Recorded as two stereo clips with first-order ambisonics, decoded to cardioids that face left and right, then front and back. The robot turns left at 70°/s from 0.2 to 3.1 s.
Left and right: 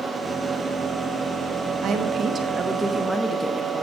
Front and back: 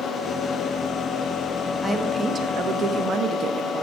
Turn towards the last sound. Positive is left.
turn(degrees=175)